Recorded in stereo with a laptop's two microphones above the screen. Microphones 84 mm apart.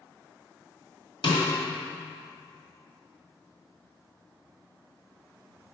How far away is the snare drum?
About 1.8 m.